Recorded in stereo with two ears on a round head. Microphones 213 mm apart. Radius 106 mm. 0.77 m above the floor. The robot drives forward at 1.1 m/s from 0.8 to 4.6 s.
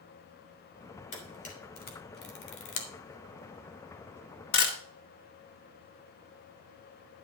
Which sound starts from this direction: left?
A camera shutter, at 1.1 s.